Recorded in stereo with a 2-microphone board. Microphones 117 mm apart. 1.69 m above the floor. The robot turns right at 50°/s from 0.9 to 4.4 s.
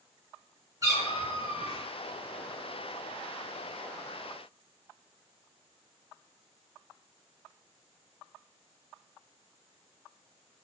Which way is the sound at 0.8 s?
125° right.